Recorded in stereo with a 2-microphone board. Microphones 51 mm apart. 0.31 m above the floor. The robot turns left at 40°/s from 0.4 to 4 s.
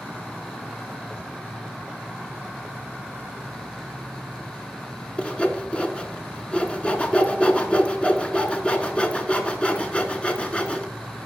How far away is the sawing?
About 0.9 m.